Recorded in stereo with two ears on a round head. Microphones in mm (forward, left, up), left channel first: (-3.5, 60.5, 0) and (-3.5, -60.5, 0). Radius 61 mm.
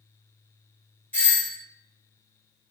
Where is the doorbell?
15° left (ahead or behind), 1.2 m.